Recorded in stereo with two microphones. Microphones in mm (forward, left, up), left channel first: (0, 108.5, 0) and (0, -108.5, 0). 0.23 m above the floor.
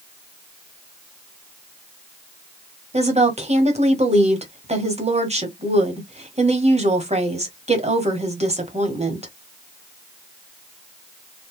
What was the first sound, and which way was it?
A woman speaking, 30° right (ahead or behind).